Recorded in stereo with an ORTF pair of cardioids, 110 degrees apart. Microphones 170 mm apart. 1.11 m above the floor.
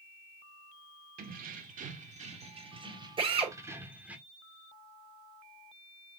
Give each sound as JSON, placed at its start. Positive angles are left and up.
{"t": 1.2, "sound": "keys jangling", "azimuth_deg": -60, "distance_m": 2.0}
{"t": 3.2, "sound": "a drill", "azimuth_deg": -30, "distance_m": 5.0}